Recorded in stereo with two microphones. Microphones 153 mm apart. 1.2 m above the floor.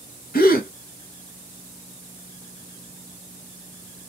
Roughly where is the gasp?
Left.